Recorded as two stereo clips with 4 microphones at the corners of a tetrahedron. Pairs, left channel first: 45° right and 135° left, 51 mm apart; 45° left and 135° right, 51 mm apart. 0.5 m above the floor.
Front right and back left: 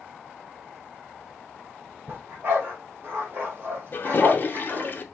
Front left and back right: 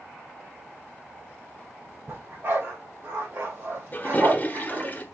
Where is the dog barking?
Straight behind, 3.5 m.